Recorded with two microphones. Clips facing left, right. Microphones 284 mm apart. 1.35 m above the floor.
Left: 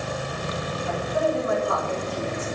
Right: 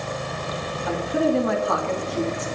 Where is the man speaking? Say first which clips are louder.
Right 5 dB; 85° right, 3 m.